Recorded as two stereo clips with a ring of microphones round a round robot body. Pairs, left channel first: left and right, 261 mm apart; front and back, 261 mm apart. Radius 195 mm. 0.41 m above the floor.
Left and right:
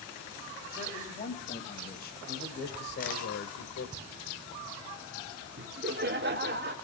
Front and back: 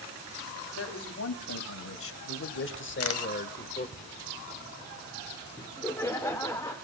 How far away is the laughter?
About 0.9 m.